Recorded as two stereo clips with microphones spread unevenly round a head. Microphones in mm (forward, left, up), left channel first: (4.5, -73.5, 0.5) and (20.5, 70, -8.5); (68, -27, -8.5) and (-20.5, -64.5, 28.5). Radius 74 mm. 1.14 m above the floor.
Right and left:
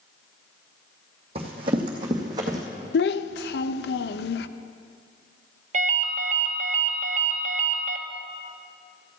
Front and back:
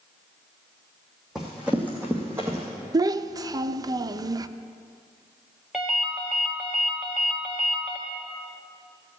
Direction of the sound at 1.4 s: 135° left.